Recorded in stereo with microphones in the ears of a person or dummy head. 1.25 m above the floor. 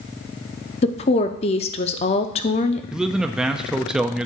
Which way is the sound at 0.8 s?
35° left (ahead or behind).